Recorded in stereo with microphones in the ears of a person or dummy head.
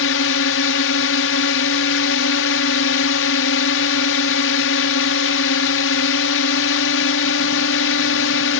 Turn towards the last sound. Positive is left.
turn(degrees=65)  # may be behind; listen again after turning